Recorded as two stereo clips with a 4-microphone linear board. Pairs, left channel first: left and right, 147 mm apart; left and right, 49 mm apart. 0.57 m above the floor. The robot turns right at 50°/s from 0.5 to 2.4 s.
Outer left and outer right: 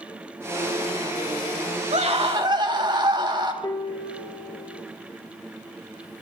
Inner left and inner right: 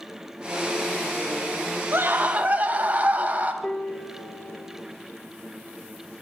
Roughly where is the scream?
Right.